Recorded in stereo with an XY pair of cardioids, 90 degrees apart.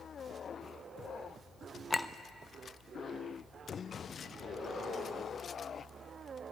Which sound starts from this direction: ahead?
A clink, at 1.9 s.